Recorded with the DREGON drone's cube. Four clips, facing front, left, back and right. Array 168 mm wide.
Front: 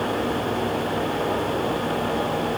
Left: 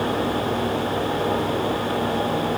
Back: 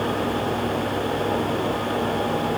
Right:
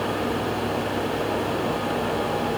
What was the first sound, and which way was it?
Only background noise.